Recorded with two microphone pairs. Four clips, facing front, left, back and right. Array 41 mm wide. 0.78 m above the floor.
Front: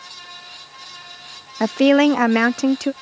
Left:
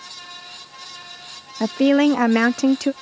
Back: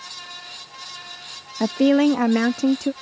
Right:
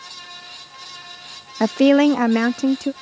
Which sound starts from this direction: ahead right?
A woman speaking, at 1.6 s.